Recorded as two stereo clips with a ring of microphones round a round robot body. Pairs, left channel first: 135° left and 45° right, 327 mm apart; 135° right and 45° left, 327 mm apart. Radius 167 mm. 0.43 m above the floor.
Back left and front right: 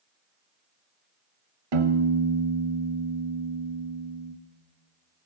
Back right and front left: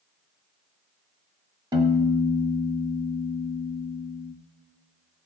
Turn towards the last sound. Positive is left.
turn(degrees=-35)